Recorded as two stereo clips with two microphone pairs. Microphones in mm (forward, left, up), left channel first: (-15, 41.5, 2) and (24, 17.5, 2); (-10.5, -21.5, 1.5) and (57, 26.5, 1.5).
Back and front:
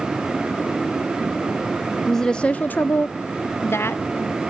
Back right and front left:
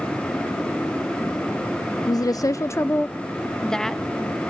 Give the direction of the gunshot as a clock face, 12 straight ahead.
No gunshot in this recording.